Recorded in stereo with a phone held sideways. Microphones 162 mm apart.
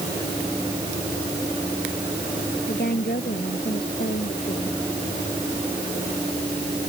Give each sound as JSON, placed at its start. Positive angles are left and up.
{"t": 2.7, "sound": "a woman speaking", "side_deg": 70}